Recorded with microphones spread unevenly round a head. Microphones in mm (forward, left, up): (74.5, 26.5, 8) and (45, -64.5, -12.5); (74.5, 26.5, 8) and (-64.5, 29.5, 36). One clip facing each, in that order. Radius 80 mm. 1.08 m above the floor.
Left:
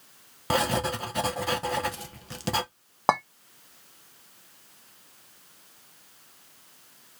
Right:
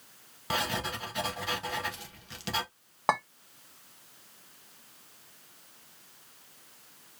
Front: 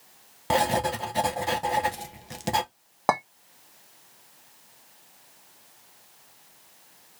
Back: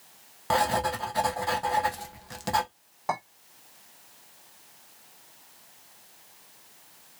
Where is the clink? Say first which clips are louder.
Left 4 dB, front 6 dB; 20° left, 1.0 m.